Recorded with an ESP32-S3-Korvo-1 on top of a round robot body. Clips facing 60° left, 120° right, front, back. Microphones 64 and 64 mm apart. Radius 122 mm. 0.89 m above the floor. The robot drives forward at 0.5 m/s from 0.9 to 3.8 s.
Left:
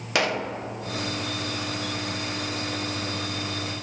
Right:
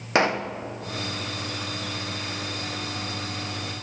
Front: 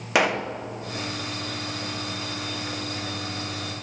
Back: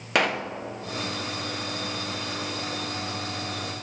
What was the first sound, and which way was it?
A pop, 80° right.